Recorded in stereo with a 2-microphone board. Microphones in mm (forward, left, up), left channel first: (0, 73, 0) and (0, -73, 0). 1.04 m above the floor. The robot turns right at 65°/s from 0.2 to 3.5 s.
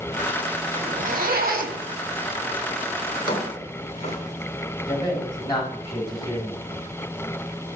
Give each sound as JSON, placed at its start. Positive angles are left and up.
{"t": 0.7, "sound": "a zipper", "azimuth_deg": -135, "distance_m": 1.3}
{"t": 3.1, "sound": "a drawer", "side_deg": 70, "distance_m": 1.9}
{"t": 4.9, "sound": "a man speaking", "side_deg": 30, "distance_m": 3.0}